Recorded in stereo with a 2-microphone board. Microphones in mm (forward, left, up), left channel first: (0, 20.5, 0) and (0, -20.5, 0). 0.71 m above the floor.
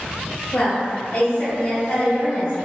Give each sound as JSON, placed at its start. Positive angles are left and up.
{"t": 0.5, "sound": "a woman speaking", "side_deg": 60, "distance_m": 1.6}